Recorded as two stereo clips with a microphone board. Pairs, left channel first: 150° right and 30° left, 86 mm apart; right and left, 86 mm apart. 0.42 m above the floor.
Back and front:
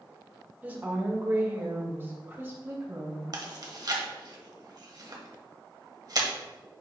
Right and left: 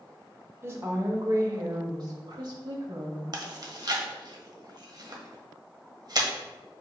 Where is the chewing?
60° left, 1.2 m.